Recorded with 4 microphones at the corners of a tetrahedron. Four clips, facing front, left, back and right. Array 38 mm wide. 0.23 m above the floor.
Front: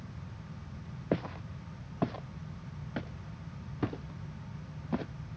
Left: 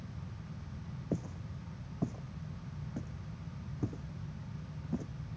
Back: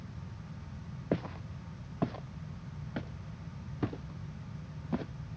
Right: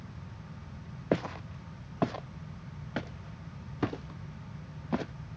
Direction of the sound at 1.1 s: 80° right.